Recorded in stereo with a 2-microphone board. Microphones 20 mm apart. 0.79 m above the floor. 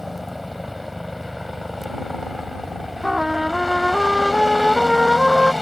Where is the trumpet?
15° right (ahead or behind).